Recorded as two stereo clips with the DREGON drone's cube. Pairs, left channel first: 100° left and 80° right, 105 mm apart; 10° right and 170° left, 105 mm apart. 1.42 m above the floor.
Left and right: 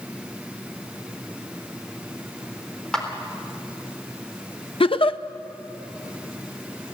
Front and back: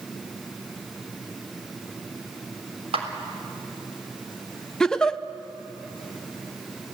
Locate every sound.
2.9 s a clap: 175° right, 3.5 m
4.8 s a giggle: 70° left, 0.7 m